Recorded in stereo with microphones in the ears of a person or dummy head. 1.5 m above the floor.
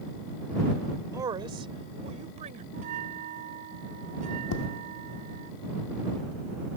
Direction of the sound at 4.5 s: 75° left (ahead or behind).